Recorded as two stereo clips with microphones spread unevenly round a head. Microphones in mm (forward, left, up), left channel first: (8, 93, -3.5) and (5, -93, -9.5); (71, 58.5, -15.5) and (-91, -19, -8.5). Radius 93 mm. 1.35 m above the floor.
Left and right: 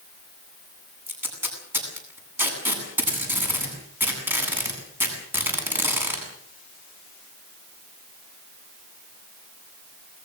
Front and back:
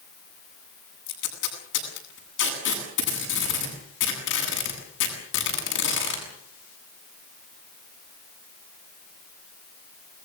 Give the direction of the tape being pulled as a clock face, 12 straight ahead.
12 o'clock.